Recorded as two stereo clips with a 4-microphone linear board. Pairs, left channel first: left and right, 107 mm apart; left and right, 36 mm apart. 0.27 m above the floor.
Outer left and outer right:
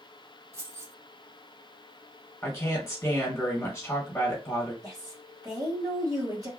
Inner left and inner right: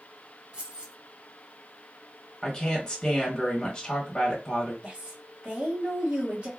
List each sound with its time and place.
0.5 s keys jangling: 30° right (ahead or behind), 1.1 m
2.4 s a woman speaking: 25° left (ahead or behind), 1.3 m
4.8 s a woman speaking: 35° right (ahead or behind), 1.9 m